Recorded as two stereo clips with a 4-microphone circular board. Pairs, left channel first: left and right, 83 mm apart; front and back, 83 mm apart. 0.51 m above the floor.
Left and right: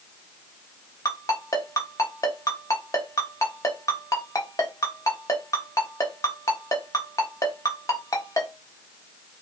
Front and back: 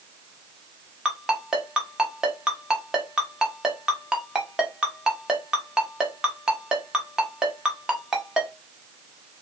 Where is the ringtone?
100° left, 0.8 m.